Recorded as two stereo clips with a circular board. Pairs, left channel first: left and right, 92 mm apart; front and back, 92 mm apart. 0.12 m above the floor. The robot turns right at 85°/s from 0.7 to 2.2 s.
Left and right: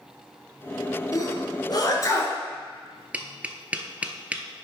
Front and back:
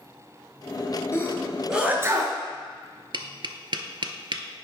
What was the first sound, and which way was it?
A sneeze, 50° left.